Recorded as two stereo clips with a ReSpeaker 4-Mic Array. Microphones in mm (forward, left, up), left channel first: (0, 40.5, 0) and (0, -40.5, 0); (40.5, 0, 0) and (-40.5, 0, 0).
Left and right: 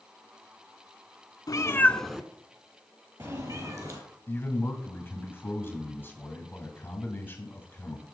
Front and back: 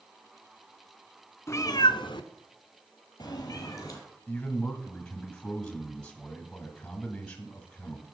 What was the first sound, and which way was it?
A cat meowing, 55° left.